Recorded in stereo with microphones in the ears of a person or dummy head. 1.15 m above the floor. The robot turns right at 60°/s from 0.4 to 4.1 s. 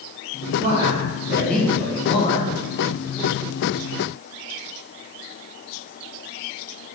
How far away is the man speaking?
About 0.8 m.